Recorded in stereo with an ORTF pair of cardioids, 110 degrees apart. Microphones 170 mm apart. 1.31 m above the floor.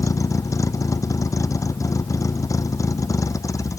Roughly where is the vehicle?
Ahead.